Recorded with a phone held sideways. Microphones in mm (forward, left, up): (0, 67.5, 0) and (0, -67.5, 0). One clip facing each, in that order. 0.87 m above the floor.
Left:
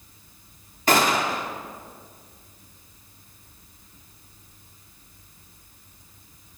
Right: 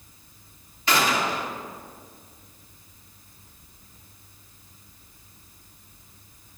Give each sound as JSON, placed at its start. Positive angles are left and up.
{"t": 0.9, "sound": "a gunshot", "side_deg": 45, "distance_m": 2.0}